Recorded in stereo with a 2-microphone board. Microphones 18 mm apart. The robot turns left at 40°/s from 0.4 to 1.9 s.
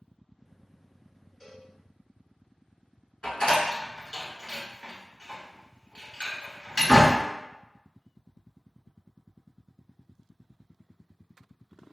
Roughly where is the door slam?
Left.